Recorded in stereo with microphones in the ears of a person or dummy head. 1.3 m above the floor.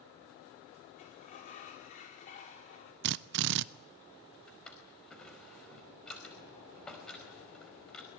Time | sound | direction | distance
1.0 | a sliding door | 40° left (ahead or behind) | 4.5 m
3.0 | a drill | 60° right (ahead or behind) | 0.6 m
4.5 | a drawer | 5° left (ahead or behind) | 4.5 m